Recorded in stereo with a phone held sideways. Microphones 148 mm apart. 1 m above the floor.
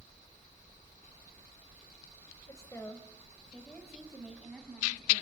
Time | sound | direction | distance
2.5 | a woman speaking | 25° left (ahead or behind) | 4 m